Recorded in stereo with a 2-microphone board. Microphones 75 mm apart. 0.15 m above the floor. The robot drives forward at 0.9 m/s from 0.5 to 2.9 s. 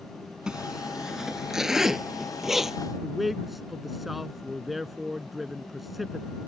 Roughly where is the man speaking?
Centre.